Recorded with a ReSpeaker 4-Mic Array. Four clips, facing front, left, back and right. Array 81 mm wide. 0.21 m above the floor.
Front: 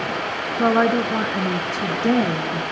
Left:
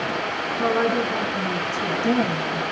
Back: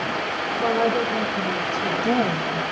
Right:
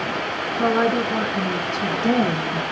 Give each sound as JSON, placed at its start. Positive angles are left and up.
{"t": 0.6, "sound": "a woman speaking", "azimuth_deg": -10, "distance_m": 3.0}